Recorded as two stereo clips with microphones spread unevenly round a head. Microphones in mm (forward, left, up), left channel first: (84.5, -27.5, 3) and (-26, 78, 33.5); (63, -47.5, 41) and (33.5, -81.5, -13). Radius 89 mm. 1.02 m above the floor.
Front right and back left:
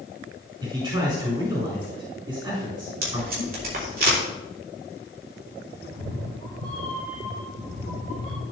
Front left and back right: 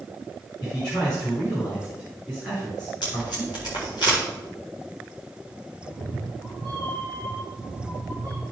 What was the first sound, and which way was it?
A man speaking, 75° left.